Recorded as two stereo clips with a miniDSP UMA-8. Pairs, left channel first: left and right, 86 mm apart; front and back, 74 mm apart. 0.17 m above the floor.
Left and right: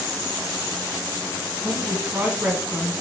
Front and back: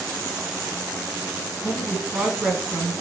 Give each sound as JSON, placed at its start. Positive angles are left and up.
{"t": 1.6, "sound": "a woman speaking", "azimuth_deg": -110, "distance_m": 1.5}